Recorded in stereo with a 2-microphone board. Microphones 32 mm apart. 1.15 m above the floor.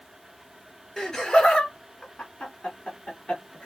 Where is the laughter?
20° left (ahead or behind), 1.4 m; by 3.7 s 45° left (ahead or behind), 2.5 m.